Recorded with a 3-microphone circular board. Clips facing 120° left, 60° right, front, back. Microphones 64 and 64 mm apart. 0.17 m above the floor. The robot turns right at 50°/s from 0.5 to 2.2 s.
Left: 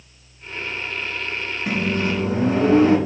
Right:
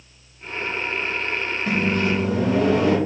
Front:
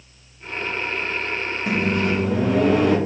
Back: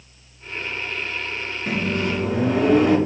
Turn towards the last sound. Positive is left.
turn(degrees=90)